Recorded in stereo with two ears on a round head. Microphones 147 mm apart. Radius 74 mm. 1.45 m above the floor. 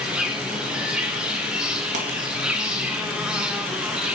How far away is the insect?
About 1.6 m.